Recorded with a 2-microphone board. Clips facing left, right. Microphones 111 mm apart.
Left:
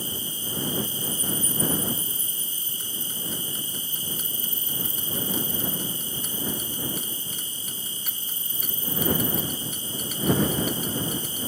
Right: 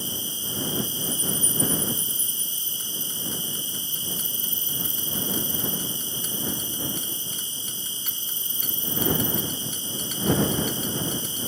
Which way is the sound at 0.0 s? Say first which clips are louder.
Even; 25° right (ahead or behind).